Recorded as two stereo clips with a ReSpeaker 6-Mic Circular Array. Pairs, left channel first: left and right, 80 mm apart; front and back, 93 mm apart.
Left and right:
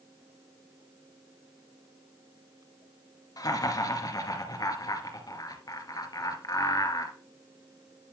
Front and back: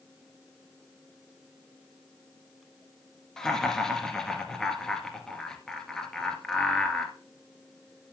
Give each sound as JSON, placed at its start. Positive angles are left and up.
{"t": 3.4, "sound": "laughter", "azimuth_deg": 85, "distance_m": 2.0}